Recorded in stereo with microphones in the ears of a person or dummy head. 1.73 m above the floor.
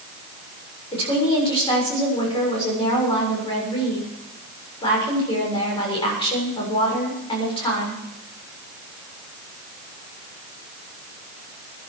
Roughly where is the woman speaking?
Left.